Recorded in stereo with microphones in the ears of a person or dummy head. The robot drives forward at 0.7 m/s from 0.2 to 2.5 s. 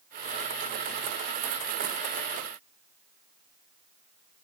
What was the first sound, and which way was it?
Only background noise.